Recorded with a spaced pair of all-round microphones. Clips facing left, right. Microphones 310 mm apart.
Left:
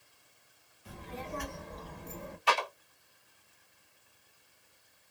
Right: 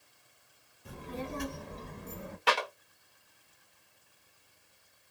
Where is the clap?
75° right (ahead or behind), 1.5 m.